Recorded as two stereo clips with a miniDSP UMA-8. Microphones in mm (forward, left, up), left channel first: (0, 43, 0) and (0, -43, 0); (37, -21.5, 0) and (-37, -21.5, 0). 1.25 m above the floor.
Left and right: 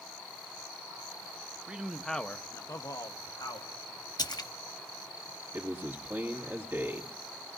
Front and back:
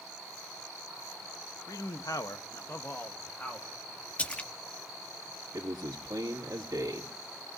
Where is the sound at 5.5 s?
150° right, 2 m.